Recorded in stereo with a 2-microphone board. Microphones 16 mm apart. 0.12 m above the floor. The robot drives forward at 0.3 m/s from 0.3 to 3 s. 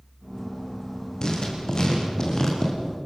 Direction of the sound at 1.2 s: 50° left (ahead or behind).